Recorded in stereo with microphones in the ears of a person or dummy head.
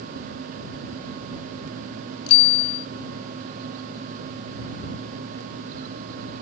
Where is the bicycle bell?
80° left.